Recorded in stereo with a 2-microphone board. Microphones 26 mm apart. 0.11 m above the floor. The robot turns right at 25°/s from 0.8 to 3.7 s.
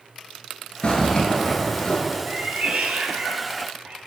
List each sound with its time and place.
0.8 s a zipper: 45° left (ahead or behind), 1.1 m; by 2.0 s 35° left (ahead or behind), 1.1 m
2.3 s a cat meowing: 105° right, 0.9 m; by 4.0 s 70° right, 0.9 m